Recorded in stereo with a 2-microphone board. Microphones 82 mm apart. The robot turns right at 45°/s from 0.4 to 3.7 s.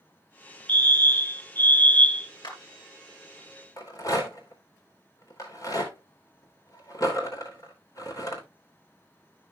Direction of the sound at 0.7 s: 20° left (ahead or behind).